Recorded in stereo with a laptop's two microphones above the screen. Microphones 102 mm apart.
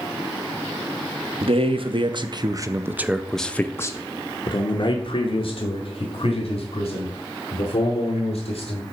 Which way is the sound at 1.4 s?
65° right (ahead or behind).